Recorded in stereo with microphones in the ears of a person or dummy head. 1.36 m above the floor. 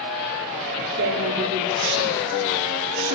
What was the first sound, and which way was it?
A woman speaking, 65° right (ahead or behind).